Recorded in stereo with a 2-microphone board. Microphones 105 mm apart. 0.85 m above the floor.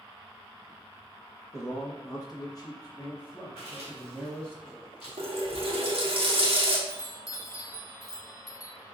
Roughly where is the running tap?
Right.